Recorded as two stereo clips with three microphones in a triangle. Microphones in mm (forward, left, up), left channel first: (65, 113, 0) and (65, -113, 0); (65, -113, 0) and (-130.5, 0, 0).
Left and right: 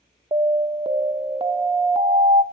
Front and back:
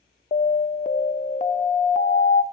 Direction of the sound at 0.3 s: 45° right.